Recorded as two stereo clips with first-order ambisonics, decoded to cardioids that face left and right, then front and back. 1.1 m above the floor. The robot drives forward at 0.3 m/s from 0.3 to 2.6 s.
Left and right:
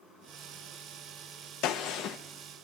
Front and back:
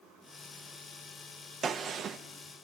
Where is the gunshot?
115° left, 0.8 m; by 2.2 s 125° left, 0.9 m.